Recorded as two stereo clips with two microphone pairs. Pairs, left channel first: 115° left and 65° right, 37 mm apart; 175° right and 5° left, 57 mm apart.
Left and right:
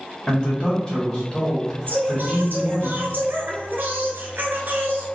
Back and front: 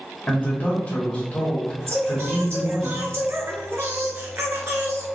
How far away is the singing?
About 0.8 m.